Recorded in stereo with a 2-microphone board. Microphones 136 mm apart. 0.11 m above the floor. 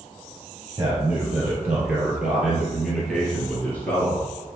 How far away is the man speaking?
About 2.5 m.